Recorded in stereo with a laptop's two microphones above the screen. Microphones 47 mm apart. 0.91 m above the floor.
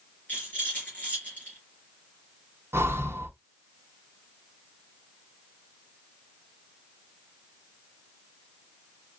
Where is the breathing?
60° right (ahead or behind), 0.8 m.